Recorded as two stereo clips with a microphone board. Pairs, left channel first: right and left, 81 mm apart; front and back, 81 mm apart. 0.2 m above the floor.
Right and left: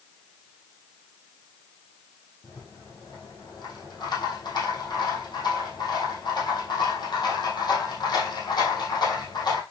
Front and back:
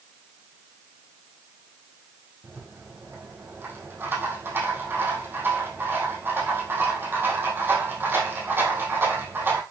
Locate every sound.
2.4 s a rattle: 120° right, 3.5 m